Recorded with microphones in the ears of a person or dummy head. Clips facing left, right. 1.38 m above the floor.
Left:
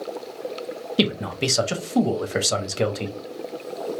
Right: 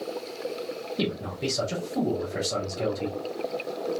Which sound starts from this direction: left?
A man speaking, at 1.0 s.